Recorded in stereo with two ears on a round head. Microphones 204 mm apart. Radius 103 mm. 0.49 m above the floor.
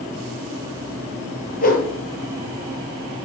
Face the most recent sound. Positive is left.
turn(degrees=40)  # may be behind; listen again after turning